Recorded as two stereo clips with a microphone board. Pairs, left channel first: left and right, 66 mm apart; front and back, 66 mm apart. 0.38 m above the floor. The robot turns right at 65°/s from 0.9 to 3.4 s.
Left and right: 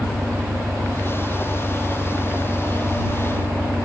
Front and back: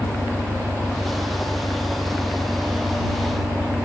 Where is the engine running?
15° left; by 3.9 s 175° left.